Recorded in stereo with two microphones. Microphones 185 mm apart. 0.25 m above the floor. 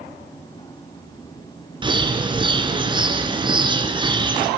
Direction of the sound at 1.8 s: 25° right (ahead or behind).